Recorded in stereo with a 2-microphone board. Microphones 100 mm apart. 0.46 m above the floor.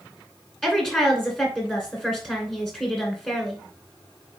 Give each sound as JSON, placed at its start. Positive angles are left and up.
{"t": 0.6, "sound": "a woman speaking", "side_deg": 5, "distance_m": 1.8}